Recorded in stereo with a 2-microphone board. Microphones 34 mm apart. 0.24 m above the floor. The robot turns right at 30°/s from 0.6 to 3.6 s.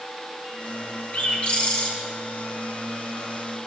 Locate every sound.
1.1 s a bird: 40° left (ahead or behind), 1.6 m; by 1.9 s 20° left (ahead or behind), 1.6 m